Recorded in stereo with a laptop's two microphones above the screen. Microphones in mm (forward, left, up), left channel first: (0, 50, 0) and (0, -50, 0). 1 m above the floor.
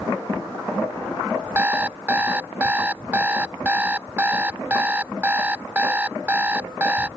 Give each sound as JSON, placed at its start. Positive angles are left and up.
{"t": 1.6, "sound": "an alarm clock", "side_deg": -15}